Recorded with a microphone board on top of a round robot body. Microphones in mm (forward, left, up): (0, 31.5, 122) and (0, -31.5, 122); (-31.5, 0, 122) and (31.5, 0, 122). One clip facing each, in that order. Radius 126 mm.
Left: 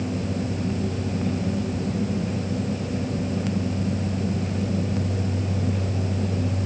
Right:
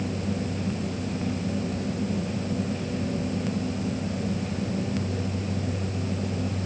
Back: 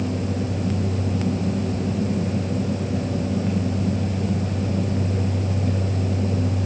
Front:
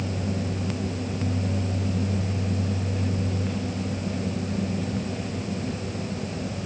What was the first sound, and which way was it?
Only background noise.